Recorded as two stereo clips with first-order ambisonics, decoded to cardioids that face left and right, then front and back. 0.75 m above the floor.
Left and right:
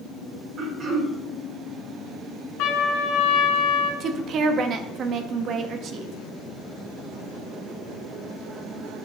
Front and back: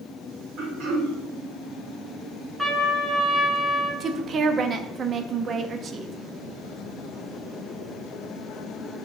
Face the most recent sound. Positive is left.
turn(degrees=-130)